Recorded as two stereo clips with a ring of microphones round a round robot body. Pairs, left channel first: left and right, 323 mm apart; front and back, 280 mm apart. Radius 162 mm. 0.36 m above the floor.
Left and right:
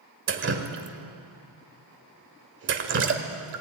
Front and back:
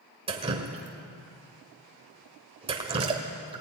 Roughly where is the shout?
I don't hear a shout.